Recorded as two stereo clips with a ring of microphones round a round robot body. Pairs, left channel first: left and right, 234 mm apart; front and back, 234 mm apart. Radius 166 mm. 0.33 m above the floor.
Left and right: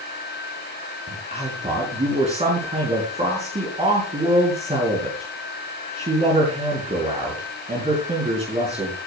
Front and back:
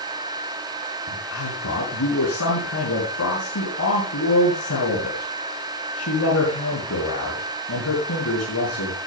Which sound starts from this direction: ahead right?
A man speaking, at 1.1 s.